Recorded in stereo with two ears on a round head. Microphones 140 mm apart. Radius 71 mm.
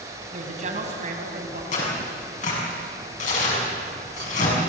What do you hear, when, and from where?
0.3 s a woman speaking: 50° right (ahead or behind), 5.5 m
1.7 s tearing paper: 50° left (ahead or behind), 6.5 m